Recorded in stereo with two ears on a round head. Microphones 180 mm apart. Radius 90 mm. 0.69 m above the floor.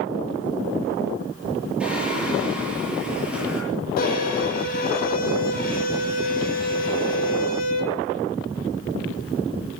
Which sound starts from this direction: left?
A violin, at 4.0 s.